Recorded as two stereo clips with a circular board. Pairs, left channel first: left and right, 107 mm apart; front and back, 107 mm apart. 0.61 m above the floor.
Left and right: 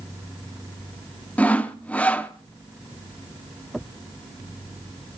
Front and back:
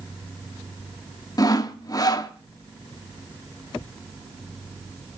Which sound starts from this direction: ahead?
Sawing, at 1.4 s.